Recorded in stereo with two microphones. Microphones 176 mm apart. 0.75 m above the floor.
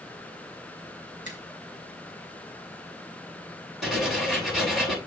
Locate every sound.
1.2 s a finger snap: 45° left (ahead or behind), 5 m
3.8 s writing: centre (ahead or behind), 9 m